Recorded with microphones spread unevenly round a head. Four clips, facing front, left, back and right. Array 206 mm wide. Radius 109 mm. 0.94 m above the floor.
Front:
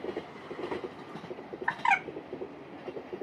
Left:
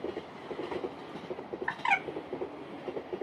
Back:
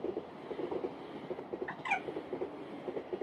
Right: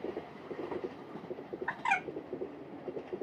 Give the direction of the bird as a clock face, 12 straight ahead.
12 o'clock.